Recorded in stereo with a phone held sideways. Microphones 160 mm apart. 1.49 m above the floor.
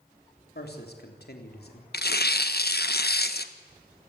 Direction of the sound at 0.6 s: 80° left.